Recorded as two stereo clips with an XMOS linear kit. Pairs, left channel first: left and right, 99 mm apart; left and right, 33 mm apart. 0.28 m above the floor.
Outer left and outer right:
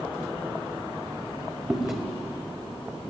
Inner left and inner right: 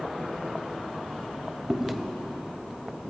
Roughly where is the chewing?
Centre.